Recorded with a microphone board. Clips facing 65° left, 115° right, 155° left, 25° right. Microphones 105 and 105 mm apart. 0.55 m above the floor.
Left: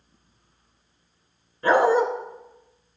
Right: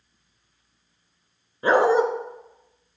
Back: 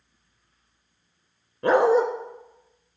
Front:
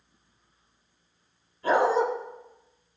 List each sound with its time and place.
1.6 s a dog barking: 175° left, 1.5 m